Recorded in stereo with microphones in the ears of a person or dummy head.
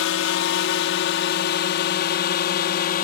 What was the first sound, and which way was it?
A drone, 65° left (ahead or behind).